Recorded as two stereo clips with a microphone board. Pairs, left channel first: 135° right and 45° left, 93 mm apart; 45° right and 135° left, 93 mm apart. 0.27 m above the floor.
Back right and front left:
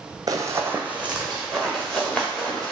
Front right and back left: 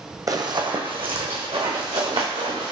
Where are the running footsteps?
90° left, 0.6 m; by 2.7 s 145° left, 1.7 m.